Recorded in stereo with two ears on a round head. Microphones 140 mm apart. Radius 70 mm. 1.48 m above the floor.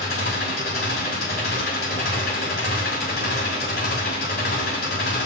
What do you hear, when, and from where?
0.0 s an engine running: 70° left (ahead or behind), 5.5 m